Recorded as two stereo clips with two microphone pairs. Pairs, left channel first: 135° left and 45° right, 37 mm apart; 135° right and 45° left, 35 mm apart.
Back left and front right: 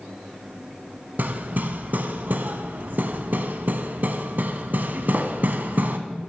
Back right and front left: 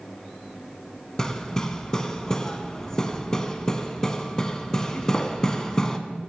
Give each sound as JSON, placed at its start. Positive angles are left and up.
{"t": 1.2, "sound": "hammering", "azimuth_deg": -65, "distance_m": 0.6}